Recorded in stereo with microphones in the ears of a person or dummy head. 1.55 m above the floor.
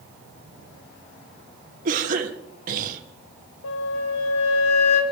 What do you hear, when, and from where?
1.9 s a cough: 50° right (ahead or behind), 2.5 m
3.6 s a flute: 80° left, 2.5 m